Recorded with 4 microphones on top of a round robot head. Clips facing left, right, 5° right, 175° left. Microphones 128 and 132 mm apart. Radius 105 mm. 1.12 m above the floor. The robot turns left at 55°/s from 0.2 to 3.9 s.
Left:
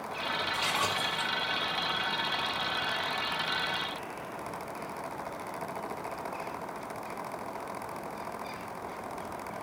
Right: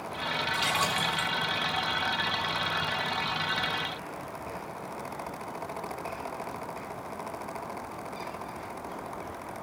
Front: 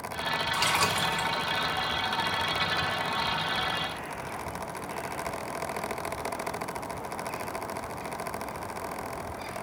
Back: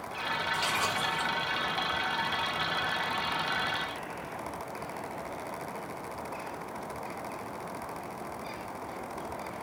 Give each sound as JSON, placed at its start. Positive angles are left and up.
{"t": 0.5, "sound": "a splash", "azimuth_deg": -5, "distance_m": 3.0}